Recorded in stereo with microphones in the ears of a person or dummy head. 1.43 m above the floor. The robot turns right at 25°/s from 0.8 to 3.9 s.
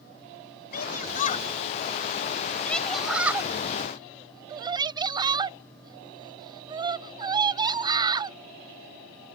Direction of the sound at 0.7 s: 55° left (ahead or behind).